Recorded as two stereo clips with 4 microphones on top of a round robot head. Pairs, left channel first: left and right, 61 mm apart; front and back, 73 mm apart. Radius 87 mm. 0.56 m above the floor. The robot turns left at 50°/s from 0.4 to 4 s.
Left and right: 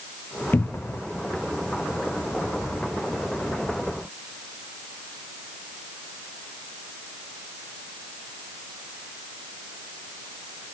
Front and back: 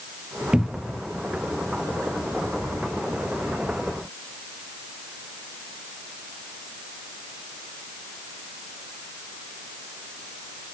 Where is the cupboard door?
105° left, 0.5 m; by 1.0 s 85° left, 0.5 m.